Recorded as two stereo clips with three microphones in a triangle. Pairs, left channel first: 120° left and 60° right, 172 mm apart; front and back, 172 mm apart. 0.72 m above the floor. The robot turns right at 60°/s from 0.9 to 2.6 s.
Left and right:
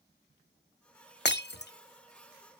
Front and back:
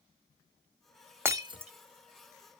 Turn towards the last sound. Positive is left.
turn(degrees=-175)